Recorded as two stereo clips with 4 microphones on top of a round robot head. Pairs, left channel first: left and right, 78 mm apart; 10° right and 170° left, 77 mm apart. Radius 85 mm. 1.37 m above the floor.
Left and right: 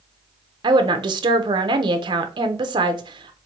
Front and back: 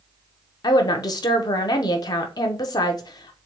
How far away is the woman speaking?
About 0.7 m.